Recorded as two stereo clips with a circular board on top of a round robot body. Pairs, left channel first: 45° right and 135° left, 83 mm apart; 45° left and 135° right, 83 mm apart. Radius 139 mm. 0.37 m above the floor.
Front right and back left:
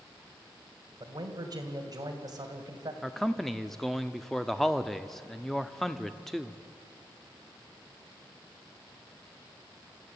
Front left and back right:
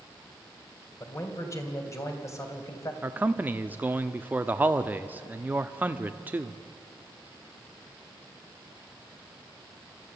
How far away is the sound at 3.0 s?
About 0.9 m.